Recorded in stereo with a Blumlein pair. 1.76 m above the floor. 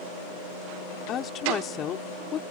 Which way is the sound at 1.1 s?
30° left.